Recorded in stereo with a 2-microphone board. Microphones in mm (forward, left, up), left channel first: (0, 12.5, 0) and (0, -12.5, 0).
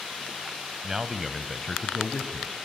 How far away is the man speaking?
About 1.0 m.